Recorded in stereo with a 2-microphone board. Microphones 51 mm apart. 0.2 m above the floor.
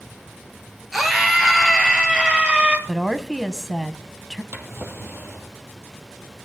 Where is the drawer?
60° right (ahead or behind), 2.5 m.